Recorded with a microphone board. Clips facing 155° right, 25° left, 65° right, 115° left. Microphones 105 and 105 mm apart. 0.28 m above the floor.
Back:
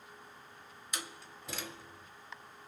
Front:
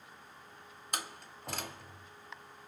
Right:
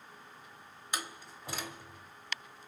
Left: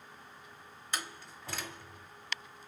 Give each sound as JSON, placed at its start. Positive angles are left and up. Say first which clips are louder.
{"t": 0.9, "sound": "a door slam", "louder": "front 3 dB, right 1 dB", "azimuth_deg": 5, "distance_m": 1.2}